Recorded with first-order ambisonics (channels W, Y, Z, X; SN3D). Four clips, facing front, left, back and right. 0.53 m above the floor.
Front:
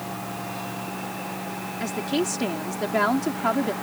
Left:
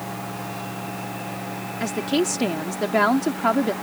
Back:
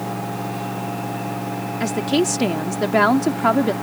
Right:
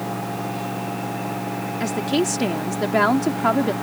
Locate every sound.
1.8 s a woman speaking: 175° right